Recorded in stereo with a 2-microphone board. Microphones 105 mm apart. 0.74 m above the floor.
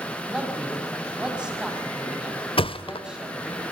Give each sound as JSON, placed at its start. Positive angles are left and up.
{"t": 0.3, "sound": "a man speaking", "side_deg": -10, "distance_m": 5.5}
{"t": 2.6, "sound": "a thud", "side_deg": 60, "distance_m": 0.9}